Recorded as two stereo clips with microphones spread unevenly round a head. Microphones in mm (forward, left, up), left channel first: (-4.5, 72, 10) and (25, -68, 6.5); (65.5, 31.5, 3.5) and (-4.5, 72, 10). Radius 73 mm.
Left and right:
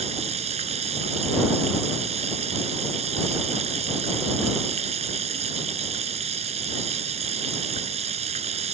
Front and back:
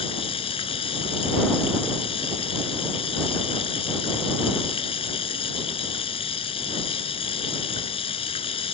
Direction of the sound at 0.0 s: 30° right.